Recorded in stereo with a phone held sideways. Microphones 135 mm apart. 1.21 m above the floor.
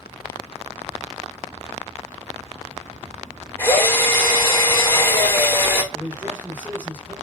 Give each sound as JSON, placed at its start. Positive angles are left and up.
{"t": 3.6, "sound": "a drill", "side_deg": 15, "distance_m": 6.0}
{"t": 5.9, "sound": "a man speaking", "side_deg": -10, "distance_m": 4.5}